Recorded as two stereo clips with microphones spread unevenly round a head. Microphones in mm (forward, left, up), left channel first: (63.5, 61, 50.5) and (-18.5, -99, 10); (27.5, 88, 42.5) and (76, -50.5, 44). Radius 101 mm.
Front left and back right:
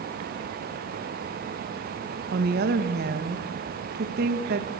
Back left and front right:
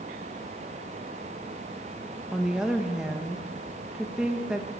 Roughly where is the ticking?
I don't hear ticking.